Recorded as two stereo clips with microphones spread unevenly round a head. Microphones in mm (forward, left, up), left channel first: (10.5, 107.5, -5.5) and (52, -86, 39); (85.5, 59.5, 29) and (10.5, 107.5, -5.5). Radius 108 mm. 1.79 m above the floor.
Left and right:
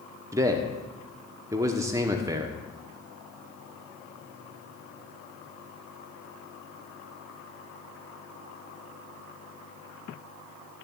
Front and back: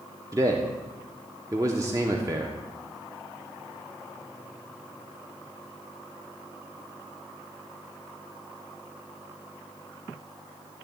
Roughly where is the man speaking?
Behind right.